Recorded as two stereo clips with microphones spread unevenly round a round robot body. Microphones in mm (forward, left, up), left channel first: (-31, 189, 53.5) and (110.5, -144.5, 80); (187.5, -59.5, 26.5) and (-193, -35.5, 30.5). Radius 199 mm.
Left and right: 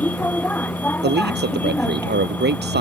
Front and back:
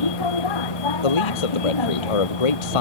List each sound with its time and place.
0.0 s a vehicle: 25° left
1.0 s a man speaking: 5° right